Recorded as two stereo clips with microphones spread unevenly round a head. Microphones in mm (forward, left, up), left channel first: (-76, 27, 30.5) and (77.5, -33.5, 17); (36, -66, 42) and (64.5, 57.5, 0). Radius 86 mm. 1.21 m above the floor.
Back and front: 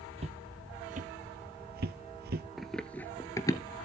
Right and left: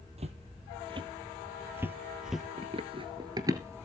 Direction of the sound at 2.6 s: 80° left.